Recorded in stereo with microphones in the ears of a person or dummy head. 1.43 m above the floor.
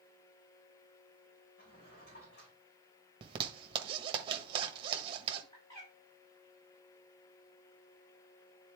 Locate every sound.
1.6 s a drawer: 40° left (ahead or behind), 3 m
3.2 s a zipper: 30° right (ahead or behind), 1.4 m
5.5 s a bird: 15° left (ahead or behind), 4.5 m